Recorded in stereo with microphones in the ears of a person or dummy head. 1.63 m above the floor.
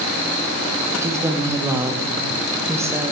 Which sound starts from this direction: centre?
A woman speaking, at 1.0 s.